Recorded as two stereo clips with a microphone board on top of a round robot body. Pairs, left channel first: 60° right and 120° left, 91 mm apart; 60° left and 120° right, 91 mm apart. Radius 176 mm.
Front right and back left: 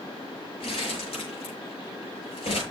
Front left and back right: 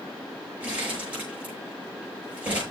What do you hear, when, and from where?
0.6 s crumpling: 45° right, 6.5 m